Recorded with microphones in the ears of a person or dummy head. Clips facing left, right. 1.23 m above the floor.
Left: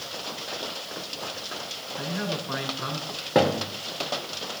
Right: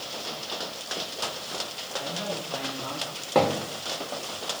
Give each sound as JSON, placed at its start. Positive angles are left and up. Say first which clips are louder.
{"t": 2.0, "sound": "a man speaking", "louder": "left 2 dB", "side_deg": 85, "distance_m": 6.5}
{"t": 3.4, "sound": "a thud", "louder": "left 1 dB", "side_deg": 10, "distance_m": 1.4}